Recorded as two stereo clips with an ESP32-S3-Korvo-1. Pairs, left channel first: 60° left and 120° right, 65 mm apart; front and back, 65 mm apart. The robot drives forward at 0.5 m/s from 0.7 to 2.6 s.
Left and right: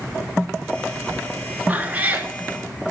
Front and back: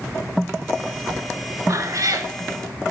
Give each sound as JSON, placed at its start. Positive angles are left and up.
{"t": 1.7, "sound": "a cat meowing", "azimuth_deg": 180, "distance_m": 0.5}